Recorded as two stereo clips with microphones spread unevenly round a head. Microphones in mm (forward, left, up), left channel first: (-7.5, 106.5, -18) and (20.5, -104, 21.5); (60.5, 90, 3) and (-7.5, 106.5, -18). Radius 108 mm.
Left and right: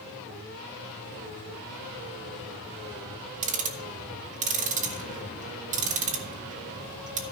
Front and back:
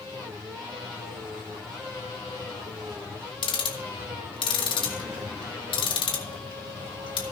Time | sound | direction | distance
3.4 | ticking | 20° right | 1.2 m